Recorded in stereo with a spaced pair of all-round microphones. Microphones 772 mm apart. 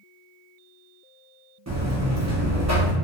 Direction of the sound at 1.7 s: 25° right (ahead or behind).